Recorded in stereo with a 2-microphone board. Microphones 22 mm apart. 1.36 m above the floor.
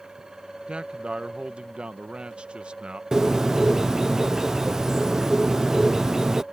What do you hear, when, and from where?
0.7 s a man speaking: 55° right (ahead or behind)
3.1 s a bird: 20° right (ahead or behind)